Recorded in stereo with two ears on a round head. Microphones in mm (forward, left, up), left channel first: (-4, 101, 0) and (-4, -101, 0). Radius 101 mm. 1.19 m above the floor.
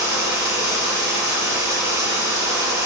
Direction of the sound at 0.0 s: 15° right (ahead or behind).